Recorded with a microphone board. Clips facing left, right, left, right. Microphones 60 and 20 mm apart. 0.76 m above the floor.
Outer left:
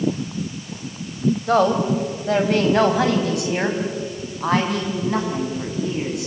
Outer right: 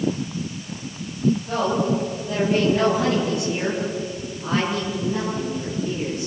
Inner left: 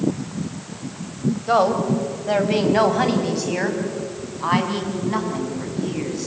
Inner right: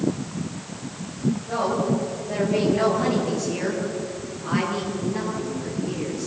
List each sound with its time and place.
1.5 s a woman speaking: 80° left, 4 m